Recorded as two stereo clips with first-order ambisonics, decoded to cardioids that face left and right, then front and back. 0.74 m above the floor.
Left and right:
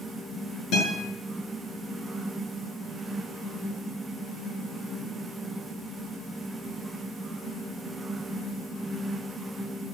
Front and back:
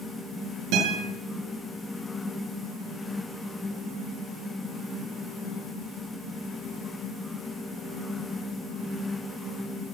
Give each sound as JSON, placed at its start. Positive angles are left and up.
{"t": 0.7, "sound": "a guitar", "azimuth_deg": 145, "distance_m": 9.0}